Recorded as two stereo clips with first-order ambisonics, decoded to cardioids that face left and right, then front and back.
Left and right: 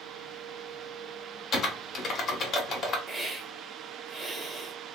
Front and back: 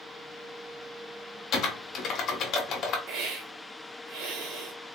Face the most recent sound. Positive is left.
turn(degrees=-165)